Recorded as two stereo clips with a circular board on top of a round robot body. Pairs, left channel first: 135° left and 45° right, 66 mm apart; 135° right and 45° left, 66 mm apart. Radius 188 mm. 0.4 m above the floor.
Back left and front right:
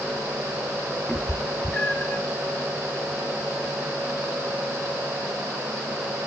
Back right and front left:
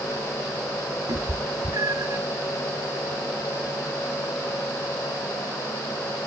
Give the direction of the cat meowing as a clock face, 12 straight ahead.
10 o'clock.